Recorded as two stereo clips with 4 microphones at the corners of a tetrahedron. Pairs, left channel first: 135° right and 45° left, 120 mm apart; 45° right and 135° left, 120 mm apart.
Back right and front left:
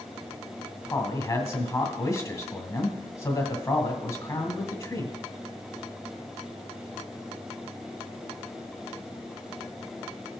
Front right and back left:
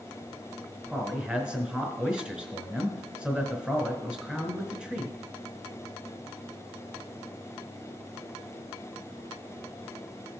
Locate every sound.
0.9 s a man speaking: 155° right, 1.4 m